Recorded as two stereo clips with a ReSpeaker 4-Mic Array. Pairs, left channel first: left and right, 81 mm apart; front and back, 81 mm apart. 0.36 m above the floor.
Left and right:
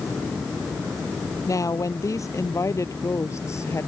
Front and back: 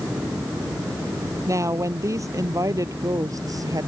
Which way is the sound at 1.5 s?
130° left.